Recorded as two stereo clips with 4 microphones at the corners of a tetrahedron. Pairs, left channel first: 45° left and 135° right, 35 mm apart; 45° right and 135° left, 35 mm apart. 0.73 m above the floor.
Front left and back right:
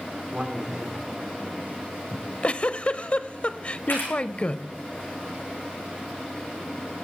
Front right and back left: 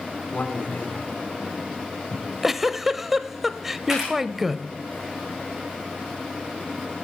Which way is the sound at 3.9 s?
60° left.